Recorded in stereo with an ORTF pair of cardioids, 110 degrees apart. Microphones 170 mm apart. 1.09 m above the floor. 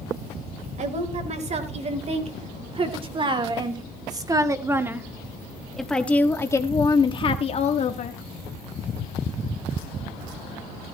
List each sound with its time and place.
0.8 s a woman speaking: 45° right, 4 m; by 8.2 s 50° left, 1.9 m